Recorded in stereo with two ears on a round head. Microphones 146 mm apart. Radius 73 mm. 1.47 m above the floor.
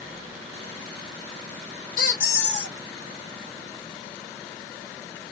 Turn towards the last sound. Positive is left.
turn(degrees=55)  # may be behind; listen again after turning